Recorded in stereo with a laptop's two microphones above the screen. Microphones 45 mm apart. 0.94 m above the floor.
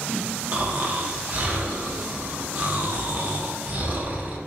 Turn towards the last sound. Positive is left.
turn(degrees=-35)  # may be behind; listen again after turning